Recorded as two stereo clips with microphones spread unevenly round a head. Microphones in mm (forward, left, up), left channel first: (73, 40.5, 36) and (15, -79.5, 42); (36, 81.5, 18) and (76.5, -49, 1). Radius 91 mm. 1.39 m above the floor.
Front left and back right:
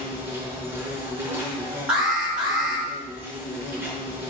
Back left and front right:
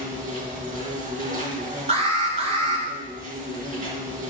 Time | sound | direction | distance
0.0 | an insect | 45° right | 5 m
1.9 | an alarm | 30° right | 6 m